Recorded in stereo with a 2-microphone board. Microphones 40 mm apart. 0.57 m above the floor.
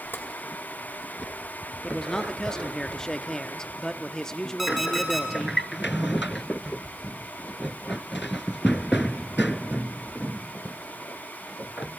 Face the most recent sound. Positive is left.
turn(degrees=-5)  # may be behind; listen again after turning